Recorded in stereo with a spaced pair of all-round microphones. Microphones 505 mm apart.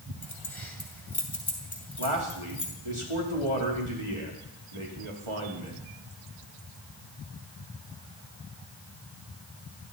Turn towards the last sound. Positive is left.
turn(degrees=-80)